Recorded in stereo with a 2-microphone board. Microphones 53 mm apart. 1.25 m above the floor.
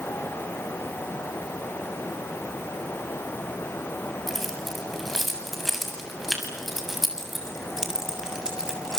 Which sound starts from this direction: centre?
Keys jangling, at 4.3 s.